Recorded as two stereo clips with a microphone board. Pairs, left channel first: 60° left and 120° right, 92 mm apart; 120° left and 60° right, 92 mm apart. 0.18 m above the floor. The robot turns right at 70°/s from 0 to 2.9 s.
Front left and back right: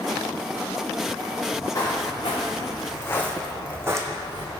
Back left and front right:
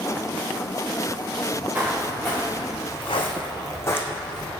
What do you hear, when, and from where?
1.7 s footsteps: 10° left, 1.2 m; by 4.5 s 155° right, 0.7 m